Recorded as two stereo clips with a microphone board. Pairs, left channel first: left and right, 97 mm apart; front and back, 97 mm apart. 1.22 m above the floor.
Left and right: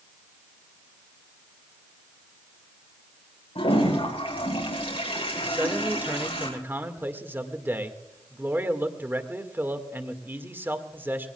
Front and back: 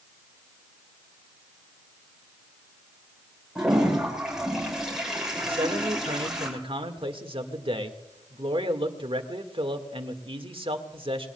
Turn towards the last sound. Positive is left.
turn(degrees=-160)